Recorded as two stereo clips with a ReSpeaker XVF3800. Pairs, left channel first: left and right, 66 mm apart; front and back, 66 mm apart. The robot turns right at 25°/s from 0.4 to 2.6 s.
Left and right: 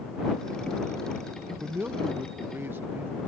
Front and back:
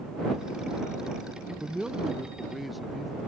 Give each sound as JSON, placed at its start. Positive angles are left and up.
{"t": 1.6, "sound": "a man speaking", "azimuth_deg": -120}